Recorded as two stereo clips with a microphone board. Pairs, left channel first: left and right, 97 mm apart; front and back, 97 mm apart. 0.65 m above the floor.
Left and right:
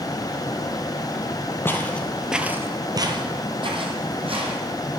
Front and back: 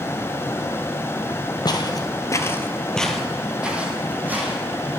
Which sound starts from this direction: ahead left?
Footsteps, at 1.6 s.